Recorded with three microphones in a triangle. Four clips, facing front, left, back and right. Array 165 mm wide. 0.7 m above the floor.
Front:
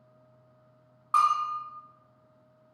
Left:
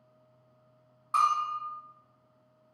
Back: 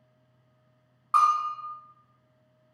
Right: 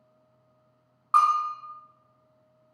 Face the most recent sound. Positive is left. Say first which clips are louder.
# right 5 dB, back 2 dB
turn(degrees=-100)